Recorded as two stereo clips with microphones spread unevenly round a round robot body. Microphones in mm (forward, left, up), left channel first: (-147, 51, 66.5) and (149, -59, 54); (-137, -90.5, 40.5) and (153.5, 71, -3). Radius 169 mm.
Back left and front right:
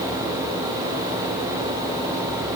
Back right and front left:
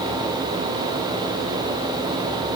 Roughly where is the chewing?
No chewing in this recording.